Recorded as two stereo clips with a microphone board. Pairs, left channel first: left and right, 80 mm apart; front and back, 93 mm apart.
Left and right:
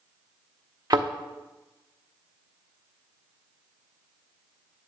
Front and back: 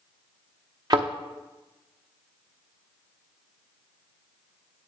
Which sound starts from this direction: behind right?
A thud, at 0.9 s.